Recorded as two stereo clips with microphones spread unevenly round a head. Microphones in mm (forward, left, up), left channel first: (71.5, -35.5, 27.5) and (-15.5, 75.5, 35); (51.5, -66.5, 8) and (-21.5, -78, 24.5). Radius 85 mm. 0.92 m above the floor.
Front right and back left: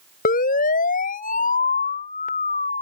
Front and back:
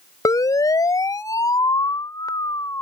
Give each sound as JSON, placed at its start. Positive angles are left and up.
{"t": 0.2, "sound": "a siren", "azimuth_deg": -30}